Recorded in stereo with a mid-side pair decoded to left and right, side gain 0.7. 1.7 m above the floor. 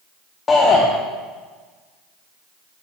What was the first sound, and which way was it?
A shout, 25° left.